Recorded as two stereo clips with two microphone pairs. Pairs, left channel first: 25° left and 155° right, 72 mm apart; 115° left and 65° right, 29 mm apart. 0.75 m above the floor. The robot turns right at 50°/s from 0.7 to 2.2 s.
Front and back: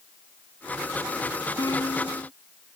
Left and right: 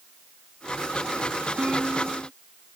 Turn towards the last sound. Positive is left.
turn(degrees=25)